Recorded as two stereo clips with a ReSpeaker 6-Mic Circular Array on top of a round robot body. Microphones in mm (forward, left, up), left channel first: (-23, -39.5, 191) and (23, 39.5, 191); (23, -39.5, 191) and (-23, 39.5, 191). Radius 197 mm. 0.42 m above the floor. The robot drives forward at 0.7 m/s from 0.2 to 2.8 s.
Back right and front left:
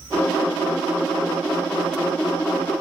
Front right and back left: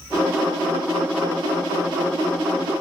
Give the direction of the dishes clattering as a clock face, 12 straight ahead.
I don't hear dishes clattering.